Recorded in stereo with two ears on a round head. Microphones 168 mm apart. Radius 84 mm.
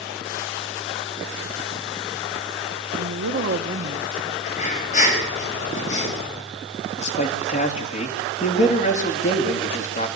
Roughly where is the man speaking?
Left.